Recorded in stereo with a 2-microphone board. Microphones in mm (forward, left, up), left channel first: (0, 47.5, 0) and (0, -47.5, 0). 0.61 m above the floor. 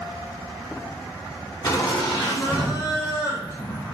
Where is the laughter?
40° left (ahead or behind), 1.3 m; by 3.9 s 25° left (ahead or behind), 1.0 m.